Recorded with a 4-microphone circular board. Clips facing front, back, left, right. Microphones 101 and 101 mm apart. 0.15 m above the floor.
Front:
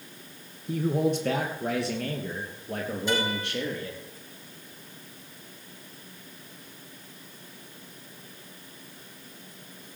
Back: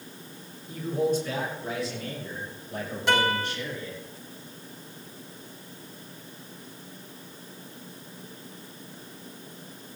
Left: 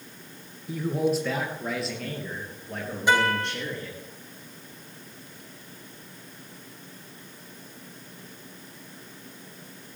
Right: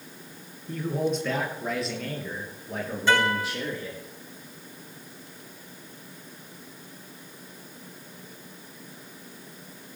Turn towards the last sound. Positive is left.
turn(degrees=165)